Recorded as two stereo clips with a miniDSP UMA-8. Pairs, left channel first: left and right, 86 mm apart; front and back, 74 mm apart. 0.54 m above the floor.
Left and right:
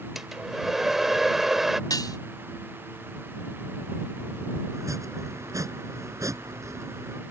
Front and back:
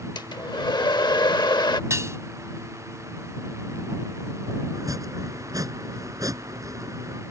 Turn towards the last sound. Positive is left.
turn(degrees=-140)